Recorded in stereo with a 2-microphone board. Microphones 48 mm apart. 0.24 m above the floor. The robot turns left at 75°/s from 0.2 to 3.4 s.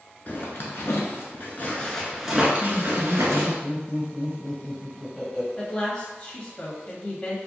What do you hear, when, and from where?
0.3 s a zipper: 140° left, 0.9 m; by 3.6 s 95° right, 0.9 m
2.6 s laughter: 15° left (ahead or behind), 1.0 m; by 5.5 s centre (ahead or behind), 1.0 m
5.6 s a woman speaking: 20° left (ahead or behind), 1.2 m